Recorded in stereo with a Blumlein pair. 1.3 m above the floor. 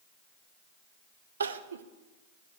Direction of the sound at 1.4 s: 70° right.